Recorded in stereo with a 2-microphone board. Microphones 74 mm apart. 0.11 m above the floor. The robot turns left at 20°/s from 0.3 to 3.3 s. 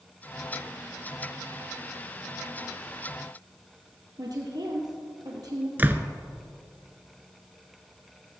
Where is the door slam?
25° right (ahead or behind), 0.8 m.